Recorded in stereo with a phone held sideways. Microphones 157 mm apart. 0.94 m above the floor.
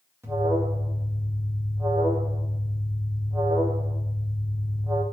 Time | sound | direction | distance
0.2 | an alarm | 15° right (ahead or behind) | 1.9 m